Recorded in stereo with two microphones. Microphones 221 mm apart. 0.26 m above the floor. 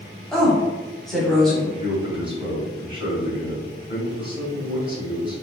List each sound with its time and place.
0.3 s a woman speaking: centre (ahead or behind), 1.2 m
1.8 s a man speaking: 25° right (ahead or behind), 1.7 m